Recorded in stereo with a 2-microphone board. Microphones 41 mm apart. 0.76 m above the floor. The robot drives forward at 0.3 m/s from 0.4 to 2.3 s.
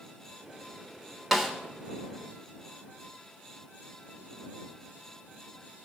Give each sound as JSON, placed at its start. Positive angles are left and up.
{"t": 1.3, "sound": "a snare drum", "side_deg": -5, "distance_m": 1.4}